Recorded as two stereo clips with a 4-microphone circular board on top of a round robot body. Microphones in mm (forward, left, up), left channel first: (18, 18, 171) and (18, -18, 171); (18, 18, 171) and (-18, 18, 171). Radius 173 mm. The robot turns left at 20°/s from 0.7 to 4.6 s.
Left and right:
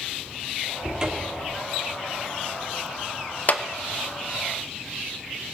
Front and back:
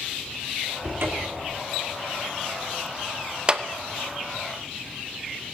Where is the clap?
120° left, 1.0 m; by 3.6 s 115° left, 1.0 m.